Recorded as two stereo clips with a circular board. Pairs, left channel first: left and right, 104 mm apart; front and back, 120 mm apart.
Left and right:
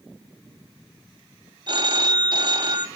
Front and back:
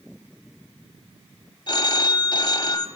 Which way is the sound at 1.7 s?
50° right.